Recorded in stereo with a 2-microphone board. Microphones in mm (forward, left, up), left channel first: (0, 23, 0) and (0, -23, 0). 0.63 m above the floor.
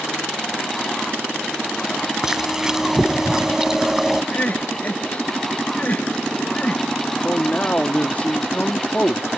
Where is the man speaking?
30° left (ahead or behind).